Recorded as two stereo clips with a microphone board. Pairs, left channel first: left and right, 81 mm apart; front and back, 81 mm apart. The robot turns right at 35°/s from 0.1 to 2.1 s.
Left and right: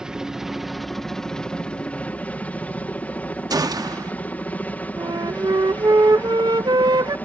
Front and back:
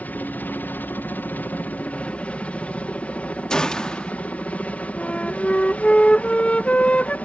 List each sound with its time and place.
0.0 s a helicopter: 25° right; by 7.3 s 50° left
3.5 s a gunshot: 80° right
5.0 s a flute: 75° right